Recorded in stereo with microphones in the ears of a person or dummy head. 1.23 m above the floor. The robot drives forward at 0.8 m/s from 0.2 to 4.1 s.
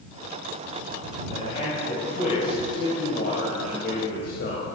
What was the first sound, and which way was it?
A man speaking, 55° left (ahead or behind).